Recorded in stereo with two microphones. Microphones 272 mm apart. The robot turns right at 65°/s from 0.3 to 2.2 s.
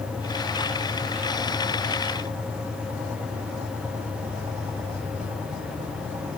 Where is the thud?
I don't hear a thud.